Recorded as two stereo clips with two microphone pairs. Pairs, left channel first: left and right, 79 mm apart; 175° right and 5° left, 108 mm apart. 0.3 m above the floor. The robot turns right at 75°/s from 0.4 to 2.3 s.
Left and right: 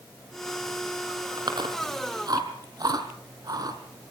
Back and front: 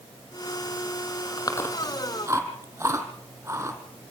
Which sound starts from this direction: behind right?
Chewing, at 1.4 s.